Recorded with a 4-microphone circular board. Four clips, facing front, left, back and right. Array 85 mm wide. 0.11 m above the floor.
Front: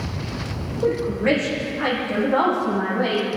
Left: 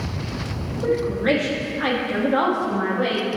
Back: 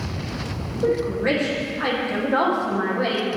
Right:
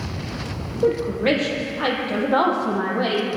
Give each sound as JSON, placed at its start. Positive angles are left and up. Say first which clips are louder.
{"t": 0.8, "sound": "a woman speaking", "louder": "right 1 dB, front 1 dB", "azimuth_deg": -70, "distance_m": 3.5}